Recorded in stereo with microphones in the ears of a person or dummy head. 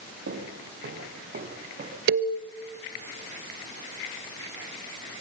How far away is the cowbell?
About 1.6 m.